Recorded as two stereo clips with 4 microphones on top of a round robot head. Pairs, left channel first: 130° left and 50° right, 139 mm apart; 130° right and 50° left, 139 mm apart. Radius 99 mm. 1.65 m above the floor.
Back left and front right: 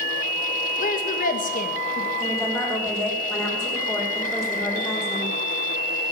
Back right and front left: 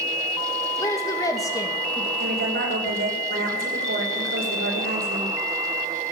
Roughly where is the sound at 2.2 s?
Ahead left.